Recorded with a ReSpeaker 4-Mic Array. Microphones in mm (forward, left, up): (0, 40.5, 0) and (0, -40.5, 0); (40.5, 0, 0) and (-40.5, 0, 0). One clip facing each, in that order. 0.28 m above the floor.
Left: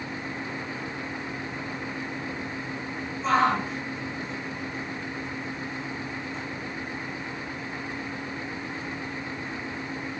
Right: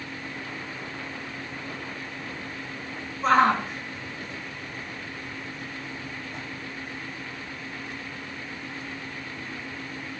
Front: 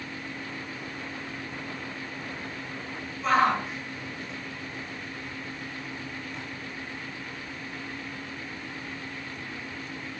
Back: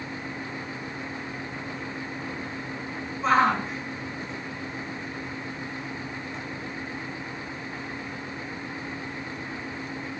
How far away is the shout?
About 4.5 m.